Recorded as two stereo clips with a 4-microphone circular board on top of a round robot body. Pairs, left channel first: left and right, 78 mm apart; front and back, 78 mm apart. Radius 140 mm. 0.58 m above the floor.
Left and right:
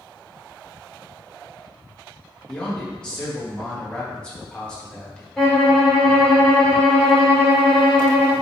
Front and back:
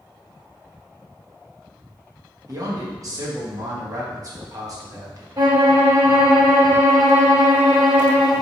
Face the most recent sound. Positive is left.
turn(degrees=170)